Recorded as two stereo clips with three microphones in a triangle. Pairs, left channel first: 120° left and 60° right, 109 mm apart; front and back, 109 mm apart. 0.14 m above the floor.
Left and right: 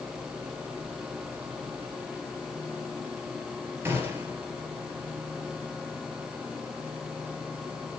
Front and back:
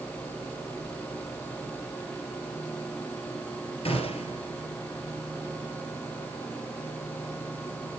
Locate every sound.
3.9 s a gunshot: 5° left, 3 m